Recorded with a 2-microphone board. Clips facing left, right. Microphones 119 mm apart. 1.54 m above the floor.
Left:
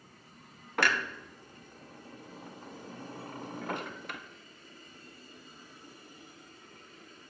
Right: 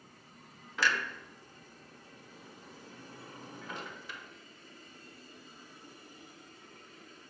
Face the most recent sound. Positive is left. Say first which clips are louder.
# left 2 dB
turn(degrees=60)  # may be behind; listen again after turning